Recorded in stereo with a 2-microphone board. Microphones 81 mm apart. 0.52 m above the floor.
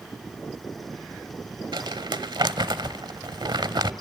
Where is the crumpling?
70° right (ahead or behind), 1.0 m.